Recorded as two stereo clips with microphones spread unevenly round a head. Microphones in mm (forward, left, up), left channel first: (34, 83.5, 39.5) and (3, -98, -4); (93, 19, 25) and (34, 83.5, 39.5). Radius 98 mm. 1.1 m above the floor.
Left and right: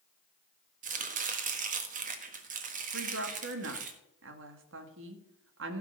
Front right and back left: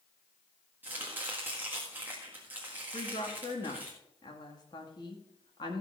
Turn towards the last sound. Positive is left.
turn(degrees=-100)